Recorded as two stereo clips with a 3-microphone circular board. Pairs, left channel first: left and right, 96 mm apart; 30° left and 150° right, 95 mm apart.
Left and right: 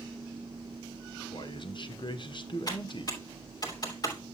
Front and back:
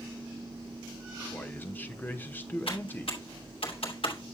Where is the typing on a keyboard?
45° left, 2.5 m.